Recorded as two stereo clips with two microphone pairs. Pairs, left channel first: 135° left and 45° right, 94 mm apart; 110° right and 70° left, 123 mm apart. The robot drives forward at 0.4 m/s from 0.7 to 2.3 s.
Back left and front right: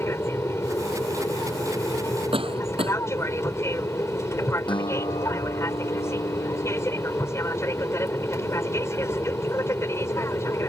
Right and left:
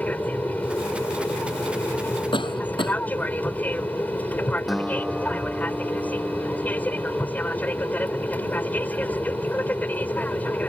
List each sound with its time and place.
0.0 s an aircraft: straight behind
2.3 s a cough: 65° right
4.7 s a guitar: 155° left